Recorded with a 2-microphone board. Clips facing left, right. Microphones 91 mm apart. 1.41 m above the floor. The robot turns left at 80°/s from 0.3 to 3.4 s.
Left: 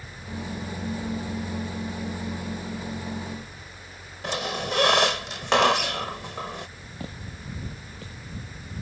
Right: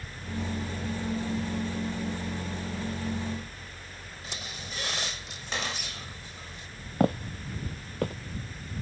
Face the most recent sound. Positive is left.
turn(degrees=-55)  # may be behind; listen again after turning